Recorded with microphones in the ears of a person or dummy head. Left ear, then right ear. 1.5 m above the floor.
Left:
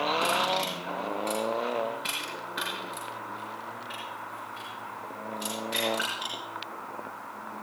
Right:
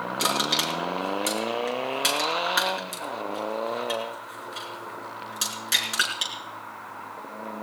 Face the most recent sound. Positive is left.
turn(degrees=-70)  # may be behind; listen again after turning